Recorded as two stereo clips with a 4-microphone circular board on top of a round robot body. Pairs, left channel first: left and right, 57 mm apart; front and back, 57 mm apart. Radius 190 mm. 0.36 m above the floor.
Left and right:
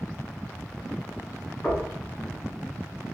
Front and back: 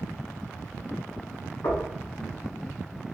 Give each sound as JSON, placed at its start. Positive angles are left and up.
{"t": 1.6, "sound": "knocking", "azimuth_deg": 20, "distance_m": 2.0}